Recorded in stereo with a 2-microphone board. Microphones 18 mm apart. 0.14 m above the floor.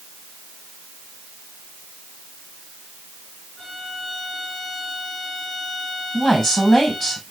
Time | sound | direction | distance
3.6 | a violin | 5° left (ahead or behind) | 4.5 m
6.1 | a woman speaking | 15° left (ahead or behind) | 5 m